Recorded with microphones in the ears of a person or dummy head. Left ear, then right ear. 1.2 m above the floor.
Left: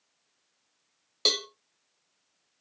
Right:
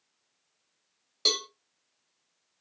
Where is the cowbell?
5° left (ahead or behind), 0.6 m.